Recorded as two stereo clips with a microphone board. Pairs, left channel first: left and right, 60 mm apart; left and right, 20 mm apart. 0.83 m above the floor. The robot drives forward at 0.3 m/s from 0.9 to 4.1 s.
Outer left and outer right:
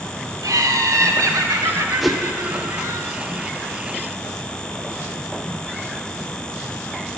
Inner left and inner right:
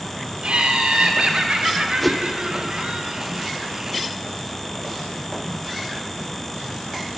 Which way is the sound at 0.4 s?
75° right (ahead or behind).